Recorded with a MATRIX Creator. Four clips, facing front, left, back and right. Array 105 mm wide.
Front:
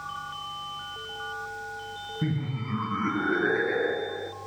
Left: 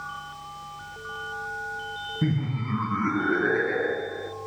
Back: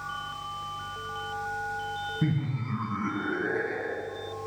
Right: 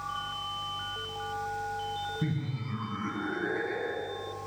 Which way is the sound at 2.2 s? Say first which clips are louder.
Left 6 dB, front 1 dB; 100° left.